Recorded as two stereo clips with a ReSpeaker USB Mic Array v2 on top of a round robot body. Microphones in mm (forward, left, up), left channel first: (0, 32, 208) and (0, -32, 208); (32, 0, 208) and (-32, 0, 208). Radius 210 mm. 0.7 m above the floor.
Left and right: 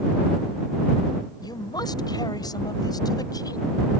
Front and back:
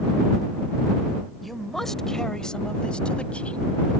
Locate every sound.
1.4 s a man speaking: 90° left; by 3.9 s 70° left